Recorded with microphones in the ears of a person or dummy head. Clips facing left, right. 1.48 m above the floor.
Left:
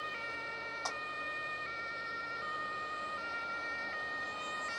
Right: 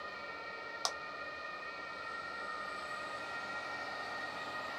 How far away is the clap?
About 0.8 m.